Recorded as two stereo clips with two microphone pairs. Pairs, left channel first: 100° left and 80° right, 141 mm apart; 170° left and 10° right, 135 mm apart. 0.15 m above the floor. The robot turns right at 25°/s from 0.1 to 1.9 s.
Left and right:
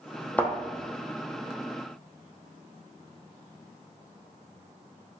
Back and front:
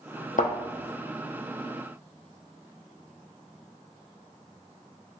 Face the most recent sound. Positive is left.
turn(degrees=-145)